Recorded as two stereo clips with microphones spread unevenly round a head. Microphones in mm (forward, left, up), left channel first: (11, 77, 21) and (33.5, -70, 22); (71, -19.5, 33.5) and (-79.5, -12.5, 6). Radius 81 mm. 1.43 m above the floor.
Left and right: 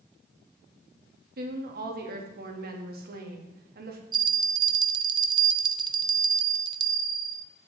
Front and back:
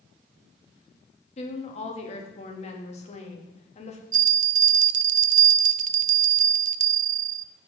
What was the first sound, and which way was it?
A woman speaking, 55° right.